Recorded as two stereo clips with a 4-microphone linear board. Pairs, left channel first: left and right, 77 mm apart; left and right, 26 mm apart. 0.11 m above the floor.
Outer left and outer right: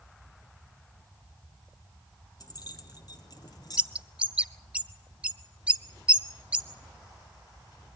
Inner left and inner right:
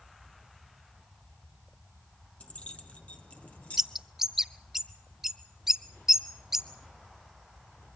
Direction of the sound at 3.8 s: 15° right (ahead or behind).